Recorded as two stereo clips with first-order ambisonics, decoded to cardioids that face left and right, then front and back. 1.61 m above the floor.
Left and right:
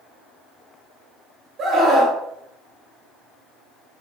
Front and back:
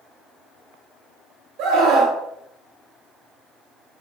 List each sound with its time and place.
1.6 s a scream: 150° right, 2 m